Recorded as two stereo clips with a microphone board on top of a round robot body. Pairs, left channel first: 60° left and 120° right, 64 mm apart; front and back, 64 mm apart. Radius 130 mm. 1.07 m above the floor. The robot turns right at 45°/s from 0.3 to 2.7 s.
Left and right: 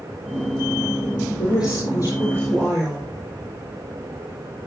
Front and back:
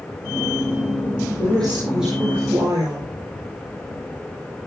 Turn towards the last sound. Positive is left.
turn(degrees=130)